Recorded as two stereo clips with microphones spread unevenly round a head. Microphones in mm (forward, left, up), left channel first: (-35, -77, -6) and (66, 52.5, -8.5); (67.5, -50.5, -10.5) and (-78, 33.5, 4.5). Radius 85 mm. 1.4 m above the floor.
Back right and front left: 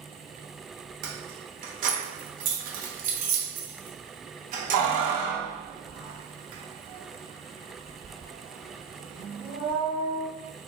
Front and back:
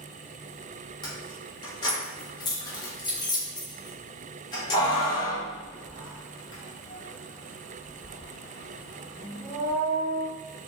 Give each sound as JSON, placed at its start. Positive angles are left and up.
{"t": 1.0, "sound": "keys jangling", "azimuth_deg": 35, "distance_m": 0.7}